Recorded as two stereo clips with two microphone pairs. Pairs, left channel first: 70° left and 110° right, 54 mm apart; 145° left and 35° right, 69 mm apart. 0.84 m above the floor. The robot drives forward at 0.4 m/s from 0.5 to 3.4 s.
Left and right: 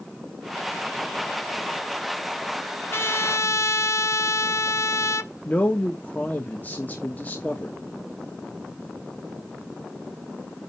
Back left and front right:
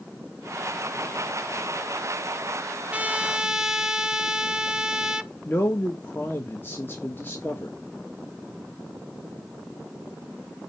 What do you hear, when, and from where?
2.9 s a trumpet: 30° left, 0.8 m; by 5.3 s 40° left, 0.6 m
5.5 s a man speaking: 105° left, 1.1 m